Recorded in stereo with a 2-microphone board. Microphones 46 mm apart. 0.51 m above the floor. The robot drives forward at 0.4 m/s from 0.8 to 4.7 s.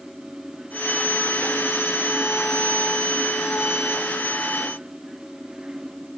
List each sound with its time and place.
Only background noise.